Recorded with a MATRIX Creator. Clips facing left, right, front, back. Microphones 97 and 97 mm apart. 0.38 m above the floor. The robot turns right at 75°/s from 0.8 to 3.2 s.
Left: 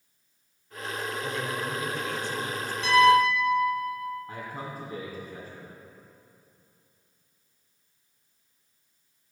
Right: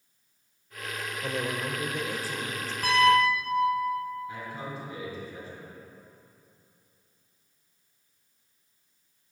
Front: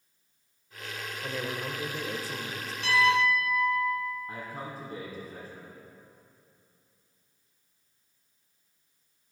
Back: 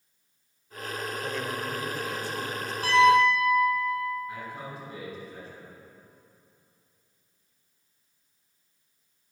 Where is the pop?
I don't hear a pop.